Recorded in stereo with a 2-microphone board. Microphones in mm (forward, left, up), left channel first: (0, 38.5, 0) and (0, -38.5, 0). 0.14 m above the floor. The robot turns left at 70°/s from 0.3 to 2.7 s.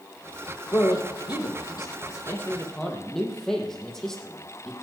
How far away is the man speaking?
About 4.5 m.